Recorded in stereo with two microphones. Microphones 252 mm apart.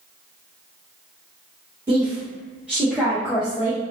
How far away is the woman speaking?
About 1.5 m.